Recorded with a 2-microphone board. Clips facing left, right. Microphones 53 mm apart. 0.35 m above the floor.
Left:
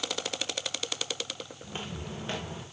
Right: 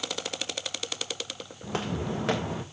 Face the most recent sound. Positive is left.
turn(degrees=-75)  # may be behind; listen again after turning